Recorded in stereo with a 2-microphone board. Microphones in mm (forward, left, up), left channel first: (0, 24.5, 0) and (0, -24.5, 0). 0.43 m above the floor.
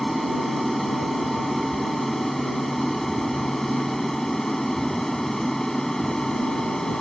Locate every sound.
0.0 s an aircraft: centre (ahead or behind); by 7.0 s 10° left (ahead or behind)